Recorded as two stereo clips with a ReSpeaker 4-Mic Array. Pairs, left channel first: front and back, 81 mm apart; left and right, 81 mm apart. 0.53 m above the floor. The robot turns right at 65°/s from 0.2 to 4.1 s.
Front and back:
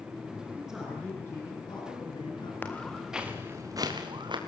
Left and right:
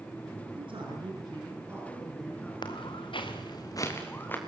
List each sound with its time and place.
0.6 s a man speaking: 105° right, 6.5 m; by 2.5 s 20° left, 6.5 m
2.6 s footsteps: 65° left, 3 m; by 4.4 s 155° left, 4.5 m